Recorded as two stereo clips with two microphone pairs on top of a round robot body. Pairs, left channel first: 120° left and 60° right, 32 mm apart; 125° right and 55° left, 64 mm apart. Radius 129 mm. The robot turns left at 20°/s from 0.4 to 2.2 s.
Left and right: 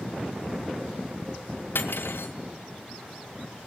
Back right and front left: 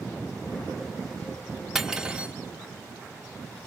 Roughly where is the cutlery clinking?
Behind left.